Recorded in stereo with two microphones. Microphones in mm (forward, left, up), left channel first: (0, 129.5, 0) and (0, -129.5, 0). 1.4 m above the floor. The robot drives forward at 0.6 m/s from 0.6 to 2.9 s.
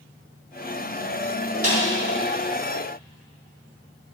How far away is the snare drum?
About 3 m.